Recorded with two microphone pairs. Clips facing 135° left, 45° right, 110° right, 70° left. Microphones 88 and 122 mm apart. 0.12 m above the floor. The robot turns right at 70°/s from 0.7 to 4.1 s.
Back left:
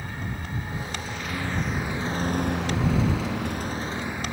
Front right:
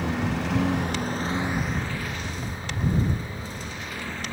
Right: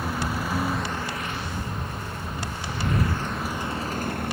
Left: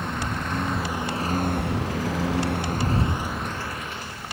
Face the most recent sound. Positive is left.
turn(degrees=-150)